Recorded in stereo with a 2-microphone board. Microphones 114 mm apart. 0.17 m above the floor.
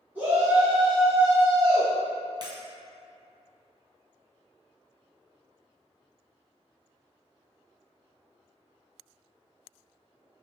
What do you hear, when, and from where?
0.1 s a shout: 15° right (ahead or behind), 1.9 m
2.4 s breaking glass: 40° right (ahead or behind), 0.8 m